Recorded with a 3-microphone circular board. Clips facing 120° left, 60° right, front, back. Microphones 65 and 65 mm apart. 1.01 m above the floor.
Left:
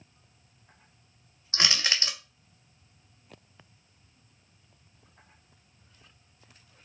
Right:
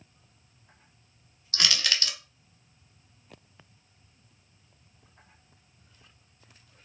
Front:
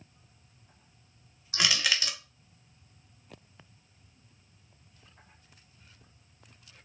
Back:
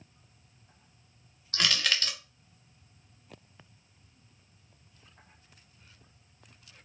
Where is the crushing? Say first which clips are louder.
Left 1 dB, even; 75° left, 0.6 m.